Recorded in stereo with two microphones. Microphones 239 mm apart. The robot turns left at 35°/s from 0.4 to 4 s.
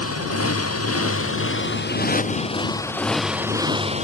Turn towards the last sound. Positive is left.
turn(degrees=-30)